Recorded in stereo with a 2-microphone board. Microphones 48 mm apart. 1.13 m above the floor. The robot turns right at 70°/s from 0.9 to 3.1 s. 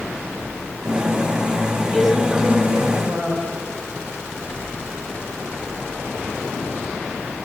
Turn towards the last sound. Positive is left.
turn(degrees=-105)